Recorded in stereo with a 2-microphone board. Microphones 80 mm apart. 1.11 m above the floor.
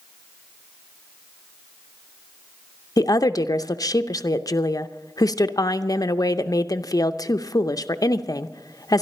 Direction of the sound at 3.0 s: 50° left (ahead or behind).